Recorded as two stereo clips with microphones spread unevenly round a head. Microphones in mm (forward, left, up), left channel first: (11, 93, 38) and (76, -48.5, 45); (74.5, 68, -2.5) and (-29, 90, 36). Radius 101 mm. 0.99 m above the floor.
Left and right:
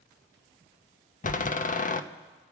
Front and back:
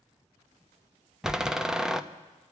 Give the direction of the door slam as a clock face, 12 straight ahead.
9 o'clock.